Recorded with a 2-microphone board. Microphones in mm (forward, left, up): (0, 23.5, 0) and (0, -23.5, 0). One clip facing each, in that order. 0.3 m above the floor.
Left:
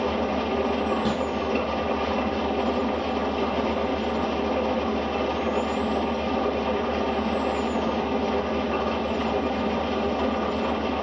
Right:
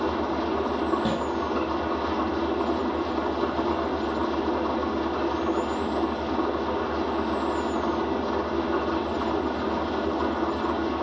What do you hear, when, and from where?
0.0 s an engine running: 80° left, 4 m
1.1 s a snare drum: 10° right (ahead or behind), 5.5 m